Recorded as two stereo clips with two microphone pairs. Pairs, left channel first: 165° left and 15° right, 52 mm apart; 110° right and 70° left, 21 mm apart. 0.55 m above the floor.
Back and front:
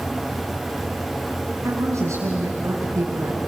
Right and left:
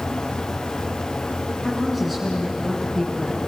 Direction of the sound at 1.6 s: 20° right.